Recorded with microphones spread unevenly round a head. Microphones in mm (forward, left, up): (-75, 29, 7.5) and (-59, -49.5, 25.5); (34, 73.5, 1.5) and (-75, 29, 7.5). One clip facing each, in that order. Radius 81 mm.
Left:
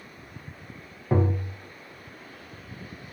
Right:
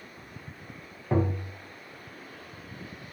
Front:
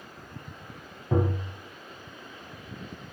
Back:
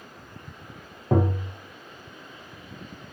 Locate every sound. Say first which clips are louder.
1.1 s tapping: left 2 dB, back 3 dB; 175° left, 0.5 m